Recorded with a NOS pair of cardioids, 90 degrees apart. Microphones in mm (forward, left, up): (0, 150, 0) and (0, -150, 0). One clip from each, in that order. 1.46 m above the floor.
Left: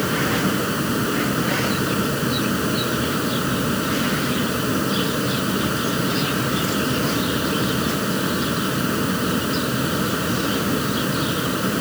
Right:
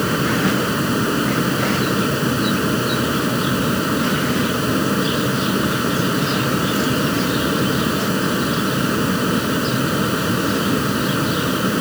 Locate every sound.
0.0 s a fan: 25° right